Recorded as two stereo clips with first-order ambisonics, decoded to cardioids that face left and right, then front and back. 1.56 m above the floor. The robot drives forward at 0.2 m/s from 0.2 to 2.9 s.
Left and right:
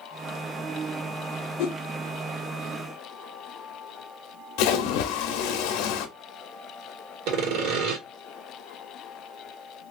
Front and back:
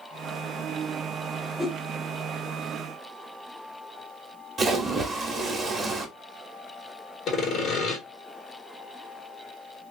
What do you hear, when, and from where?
1.6 s a whoosh: 90° left, 0.7 m; by 1.8 s 95° left, 0.7 m
4.6 s a splash: 110° left, 0.7 m
7.3 s sawing: 65° right, 1.4 m